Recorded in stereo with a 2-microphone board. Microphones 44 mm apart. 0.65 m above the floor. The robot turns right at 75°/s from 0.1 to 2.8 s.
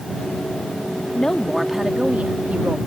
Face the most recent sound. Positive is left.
turn(degrees=-90)